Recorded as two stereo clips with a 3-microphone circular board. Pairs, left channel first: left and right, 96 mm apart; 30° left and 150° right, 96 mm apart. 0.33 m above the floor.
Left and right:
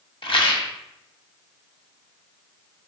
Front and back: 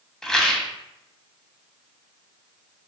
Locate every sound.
0.2 s a rattle: 115° left, 0.6 m